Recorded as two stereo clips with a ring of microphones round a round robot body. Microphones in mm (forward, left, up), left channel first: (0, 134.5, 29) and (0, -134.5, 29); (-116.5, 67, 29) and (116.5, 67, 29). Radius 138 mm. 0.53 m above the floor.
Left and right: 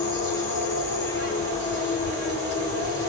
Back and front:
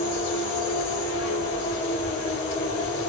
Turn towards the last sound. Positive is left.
turn(degrees=160)